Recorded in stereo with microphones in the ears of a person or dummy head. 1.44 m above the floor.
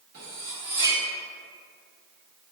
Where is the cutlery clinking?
45° right (ahead or behind), 1.1 m.